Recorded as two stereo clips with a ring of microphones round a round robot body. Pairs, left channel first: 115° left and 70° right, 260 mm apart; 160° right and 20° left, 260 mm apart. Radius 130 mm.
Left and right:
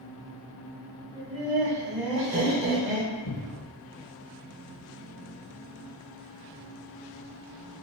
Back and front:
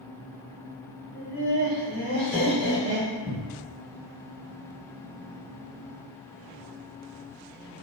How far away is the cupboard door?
About 0.5 m.